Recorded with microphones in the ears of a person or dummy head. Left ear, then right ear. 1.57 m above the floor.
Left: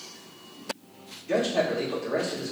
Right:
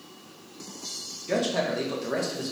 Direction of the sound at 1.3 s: 65° right (ahead or behind).